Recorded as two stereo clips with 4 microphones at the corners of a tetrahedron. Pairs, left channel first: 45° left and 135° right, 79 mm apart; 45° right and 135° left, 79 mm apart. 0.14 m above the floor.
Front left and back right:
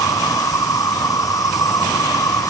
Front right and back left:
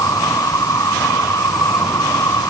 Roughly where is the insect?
Ahead.